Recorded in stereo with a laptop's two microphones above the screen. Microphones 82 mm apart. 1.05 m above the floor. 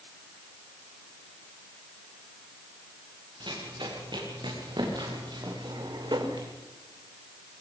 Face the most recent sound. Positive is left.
turn(degrees=-65)  # may be behind; listen again after turning